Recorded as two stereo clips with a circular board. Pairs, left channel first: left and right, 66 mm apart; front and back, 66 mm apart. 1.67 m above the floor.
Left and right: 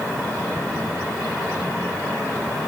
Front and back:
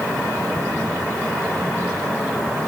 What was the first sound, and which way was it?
Only background noise.